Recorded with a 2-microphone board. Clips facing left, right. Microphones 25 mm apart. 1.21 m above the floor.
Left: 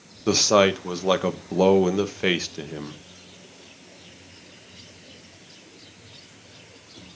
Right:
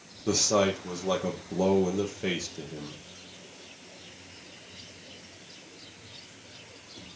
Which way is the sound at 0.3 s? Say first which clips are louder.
Left 7 dB; 45° left (ahead or behind).